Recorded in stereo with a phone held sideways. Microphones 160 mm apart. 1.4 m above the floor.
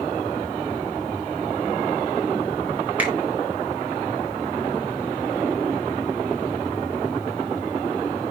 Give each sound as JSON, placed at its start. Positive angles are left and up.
{"t": 3.0, "sound": "a finger snap", "side_deg": -10, "distance_m": 4.5}